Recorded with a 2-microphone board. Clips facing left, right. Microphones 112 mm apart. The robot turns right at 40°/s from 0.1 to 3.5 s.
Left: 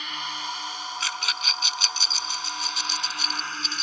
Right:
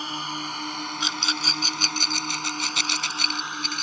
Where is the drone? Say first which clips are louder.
Right 2 dB; 35° right (ahead or behind); by 3.8 s 15° right (ahead or behind).